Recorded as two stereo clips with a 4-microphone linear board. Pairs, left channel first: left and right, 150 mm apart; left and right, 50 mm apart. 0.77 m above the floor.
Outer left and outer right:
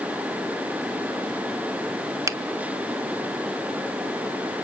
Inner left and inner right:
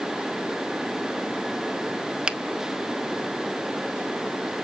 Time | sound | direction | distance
2.3 | a finger snap | 20° right (ahead or behind) | 0.6 m